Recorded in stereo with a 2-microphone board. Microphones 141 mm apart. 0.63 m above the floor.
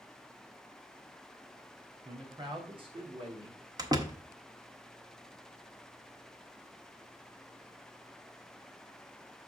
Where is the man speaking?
30° right (ahead or behind), 1.7 m; by 3.6 s 45° right (ahead or behind), 1.4 m.